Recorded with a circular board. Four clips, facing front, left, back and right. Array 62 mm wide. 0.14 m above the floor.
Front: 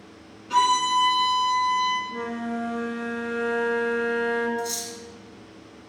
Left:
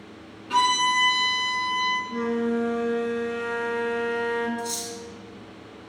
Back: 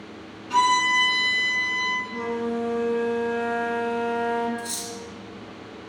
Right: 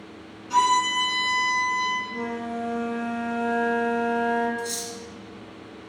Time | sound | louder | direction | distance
0.5 | a violin | right 1 dB, back 1 dB | 95° left | 0.8 m
2.1 | a flute | left 5 dB, back 3 dB | 60° left | 0.6 m
4.6 | cutlery clinking | even, front 3 dB | 175° right | 0.8 m